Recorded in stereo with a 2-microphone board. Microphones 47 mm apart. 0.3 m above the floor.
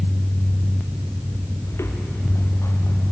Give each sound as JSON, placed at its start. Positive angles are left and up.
{"t": 1.7, "sound": "footsteps", "side_deg": 80, "distance_m": 3.5}